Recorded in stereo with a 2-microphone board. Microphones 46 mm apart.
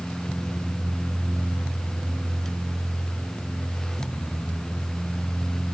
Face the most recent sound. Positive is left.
No sound to turn to.